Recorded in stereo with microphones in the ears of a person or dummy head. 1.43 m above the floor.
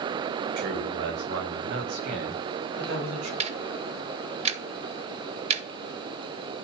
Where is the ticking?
35° right (ahead or behind), 1.8 m.